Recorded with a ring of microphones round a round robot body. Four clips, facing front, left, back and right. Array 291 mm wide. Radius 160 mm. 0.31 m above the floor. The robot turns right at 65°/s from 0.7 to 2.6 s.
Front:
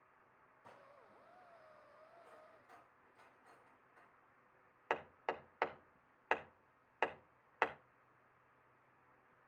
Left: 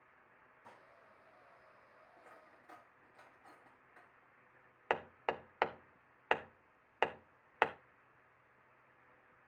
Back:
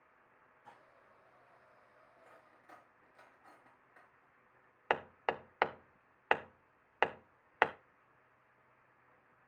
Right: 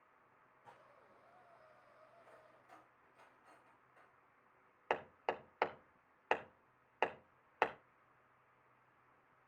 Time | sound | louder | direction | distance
0.6 | dishes clattering | left 2 dB, back 2 dB | 50° left | 8.5 m
2.2 | cutlery clinking | left 2 dB, front 1 dB | 110° left | 4 m
4.9 | hammering | left 2 dB, back 6 dB | 165° left | 0.7 m